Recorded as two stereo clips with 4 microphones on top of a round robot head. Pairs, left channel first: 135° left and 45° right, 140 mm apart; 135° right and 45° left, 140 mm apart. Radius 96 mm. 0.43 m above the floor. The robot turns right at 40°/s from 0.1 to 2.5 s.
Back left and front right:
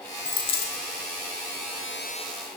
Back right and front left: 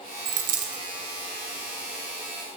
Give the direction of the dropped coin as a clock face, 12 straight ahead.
10 o'clock.